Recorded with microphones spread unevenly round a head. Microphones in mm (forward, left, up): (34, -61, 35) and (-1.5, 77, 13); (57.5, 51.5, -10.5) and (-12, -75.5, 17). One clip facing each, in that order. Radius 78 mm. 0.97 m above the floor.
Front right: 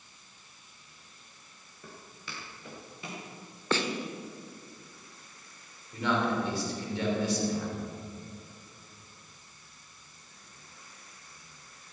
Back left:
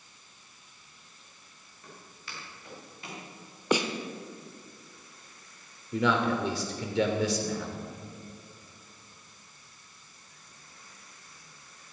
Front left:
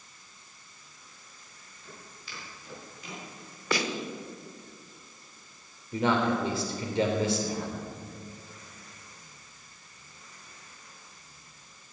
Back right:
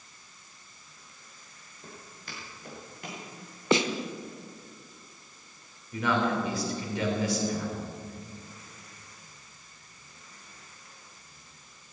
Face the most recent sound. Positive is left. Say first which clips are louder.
# back left 2 dB, front left 1 dB
turn(degrees=130)